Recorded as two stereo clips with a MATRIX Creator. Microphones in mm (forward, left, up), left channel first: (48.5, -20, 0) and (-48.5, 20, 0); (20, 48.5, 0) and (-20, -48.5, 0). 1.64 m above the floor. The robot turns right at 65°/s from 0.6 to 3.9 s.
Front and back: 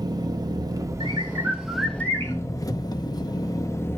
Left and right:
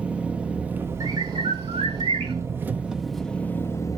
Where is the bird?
165° right, 2.5 m; by 2.4 s 80° right, 2.5 m.